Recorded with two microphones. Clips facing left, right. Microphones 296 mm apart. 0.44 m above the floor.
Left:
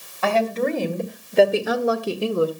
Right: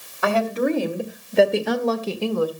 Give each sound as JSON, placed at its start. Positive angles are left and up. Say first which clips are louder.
{"t": 0.2, "sound": "a woman speaking", "louder": "right 1 dB", "side_deg": -15, "distance_m": 3.0}